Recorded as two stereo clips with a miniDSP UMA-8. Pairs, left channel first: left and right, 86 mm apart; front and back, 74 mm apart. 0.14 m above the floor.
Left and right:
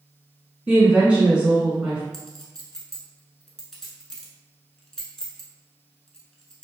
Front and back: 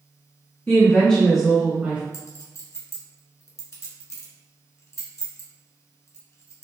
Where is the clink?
10° left, 0.9 m.